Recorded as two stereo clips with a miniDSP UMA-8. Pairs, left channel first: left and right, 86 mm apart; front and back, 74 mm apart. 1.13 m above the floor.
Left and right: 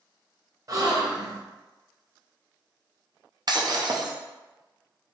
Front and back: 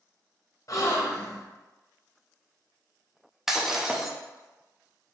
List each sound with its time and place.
0.7 s a gasp: 45° right, 0.8 m
3.5 s breaking glass: 95° right, 0.6 m